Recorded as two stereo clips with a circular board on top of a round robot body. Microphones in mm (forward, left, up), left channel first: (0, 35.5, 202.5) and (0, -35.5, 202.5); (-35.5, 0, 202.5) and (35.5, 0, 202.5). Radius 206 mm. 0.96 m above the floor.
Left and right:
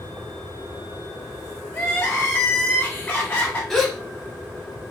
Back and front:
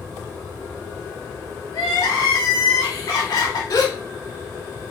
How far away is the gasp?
About 1.1 m.